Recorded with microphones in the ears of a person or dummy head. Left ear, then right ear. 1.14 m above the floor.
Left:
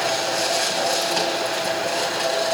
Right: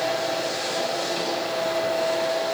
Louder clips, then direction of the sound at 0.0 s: Left 3 dB; 50° left (ahead or behind).